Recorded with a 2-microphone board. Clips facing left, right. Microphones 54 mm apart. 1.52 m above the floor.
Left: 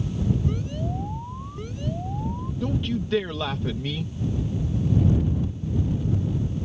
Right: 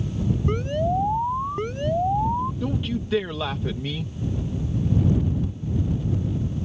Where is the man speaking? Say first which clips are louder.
Even; centre (ahead or behind).